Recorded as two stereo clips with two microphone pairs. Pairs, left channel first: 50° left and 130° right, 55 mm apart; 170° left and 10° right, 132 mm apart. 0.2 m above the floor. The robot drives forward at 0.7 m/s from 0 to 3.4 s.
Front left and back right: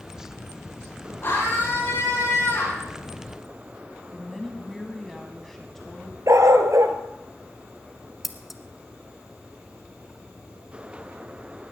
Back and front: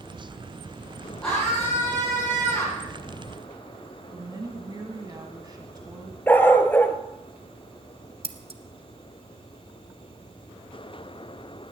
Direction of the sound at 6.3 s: 115° right.